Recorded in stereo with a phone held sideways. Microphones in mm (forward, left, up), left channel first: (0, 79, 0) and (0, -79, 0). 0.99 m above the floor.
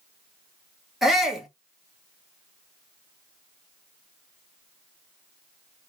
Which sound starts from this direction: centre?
A shout, at 1.0 s.